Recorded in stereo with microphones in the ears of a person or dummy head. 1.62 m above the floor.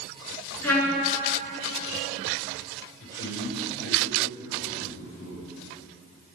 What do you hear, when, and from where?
0.6 s a trumpet: 10° left (ahead or behind), 4.5 m
3.0 s a man speaking: 70° left (ahead or behind), 6 m